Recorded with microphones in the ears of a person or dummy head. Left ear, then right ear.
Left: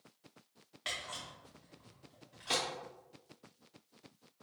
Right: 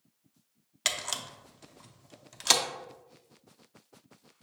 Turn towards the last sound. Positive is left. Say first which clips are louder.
# right 8 dB
turn(degrees=-75)  # may be behind; listen again after turning